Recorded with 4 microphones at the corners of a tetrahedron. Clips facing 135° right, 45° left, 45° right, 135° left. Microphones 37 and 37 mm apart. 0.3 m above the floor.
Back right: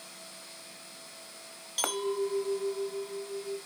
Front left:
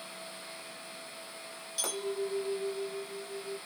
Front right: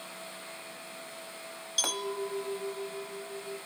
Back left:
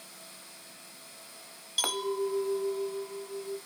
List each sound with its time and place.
1.8 s a clink: 155° right, 0.7 m